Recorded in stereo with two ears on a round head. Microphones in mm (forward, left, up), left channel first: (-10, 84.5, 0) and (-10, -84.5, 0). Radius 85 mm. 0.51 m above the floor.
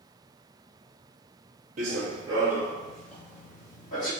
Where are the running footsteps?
45° right (ahead or behind), 0.6 m; by 4.1 s 20° left (ahead or behind), 1.4 m.